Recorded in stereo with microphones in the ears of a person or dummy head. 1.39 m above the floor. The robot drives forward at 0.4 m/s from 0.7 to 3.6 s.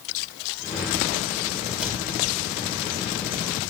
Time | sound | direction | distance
1.8 | a cupboard door | 5° right (ahead or behind) | 2.5 m